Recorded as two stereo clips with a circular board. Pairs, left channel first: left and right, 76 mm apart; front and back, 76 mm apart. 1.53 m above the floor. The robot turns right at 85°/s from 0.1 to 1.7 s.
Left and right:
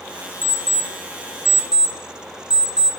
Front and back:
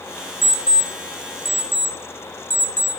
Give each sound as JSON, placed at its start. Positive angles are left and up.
{"t": 0.4, "sound": "an alarm clock", "azimuth_deg": 100, "distance_m": 0.7}